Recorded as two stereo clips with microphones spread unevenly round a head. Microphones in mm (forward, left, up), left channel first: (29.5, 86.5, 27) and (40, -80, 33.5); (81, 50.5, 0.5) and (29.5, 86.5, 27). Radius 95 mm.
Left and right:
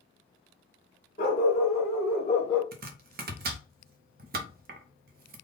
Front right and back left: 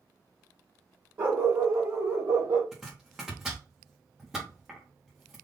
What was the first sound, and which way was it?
A dog barking, 145° left.